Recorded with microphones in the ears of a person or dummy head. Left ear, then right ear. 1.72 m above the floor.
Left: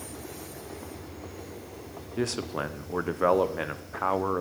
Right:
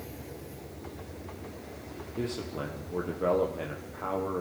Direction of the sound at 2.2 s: 50° left (ahead or behind).